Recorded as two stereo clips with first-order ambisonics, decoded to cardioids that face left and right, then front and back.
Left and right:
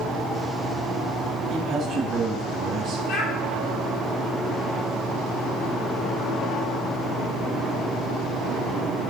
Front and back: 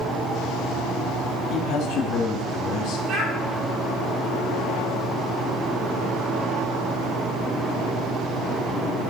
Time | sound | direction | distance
1.5 | a man speaking | 40° right | 3 m
3.1 | a child speaking | 135° left | 5.5 m